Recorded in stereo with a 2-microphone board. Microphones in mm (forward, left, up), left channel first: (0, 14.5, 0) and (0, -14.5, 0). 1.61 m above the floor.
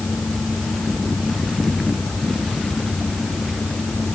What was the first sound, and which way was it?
Only background noise.